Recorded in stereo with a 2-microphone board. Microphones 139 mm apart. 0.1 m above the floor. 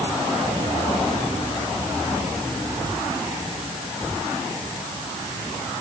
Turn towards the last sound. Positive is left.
No sound to turn to.